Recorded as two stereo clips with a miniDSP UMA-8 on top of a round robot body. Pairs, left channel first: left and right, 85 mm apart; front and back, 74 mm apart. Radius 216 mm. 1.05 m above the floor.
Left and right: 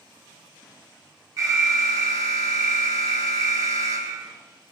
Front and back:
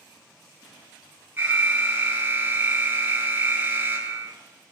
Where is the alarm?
120° right, 1.8 m.